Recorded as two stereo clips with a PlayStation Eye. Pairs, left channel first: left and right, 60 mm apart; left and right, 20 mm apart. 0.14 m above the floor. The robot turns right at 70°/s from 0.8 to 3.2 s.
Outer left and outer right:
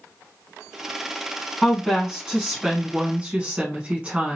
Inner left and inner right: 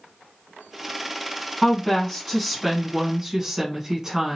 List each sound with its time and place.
1.6 s a woman speaking: 10° left (ahead or behind), 1.0 m; by 4.4 s 20° right (ahead or behind), 1.0 m